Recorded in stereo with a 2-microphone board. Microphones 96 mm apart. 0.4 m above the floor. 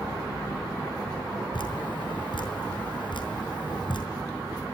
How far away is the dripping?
About 4.5 m.